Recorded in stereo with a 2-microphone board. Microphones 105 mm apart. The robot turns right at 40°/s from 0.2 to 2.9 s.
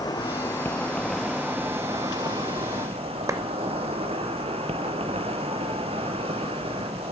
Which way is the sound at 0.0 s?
140° left.